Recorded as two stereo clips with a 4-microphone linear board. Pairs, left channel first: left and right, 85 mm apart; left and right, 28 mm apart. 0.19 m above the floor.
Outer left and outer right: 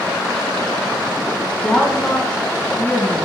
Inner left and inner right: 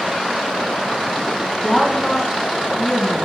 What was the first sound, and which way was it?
A woman speaking, 15° left (ahead or behind).